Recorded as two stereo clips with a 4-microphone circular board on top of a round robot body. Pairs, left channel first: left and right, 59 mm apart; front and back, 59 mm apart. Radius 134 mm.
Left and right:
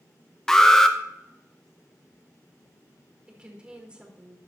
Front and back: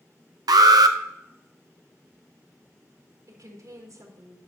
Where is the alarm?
170° left, 0.8 m.